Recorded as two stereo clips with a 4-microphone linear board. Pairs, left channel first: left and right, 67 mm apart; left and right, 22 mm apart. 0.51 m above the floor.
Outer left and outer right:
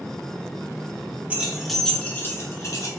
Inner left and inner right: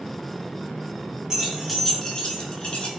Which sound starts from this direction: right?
Keys jangling, at 1.3 s.